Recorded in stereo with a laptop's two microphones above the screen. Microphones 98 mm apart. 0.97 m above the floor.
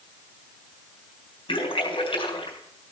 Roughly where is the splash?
Left.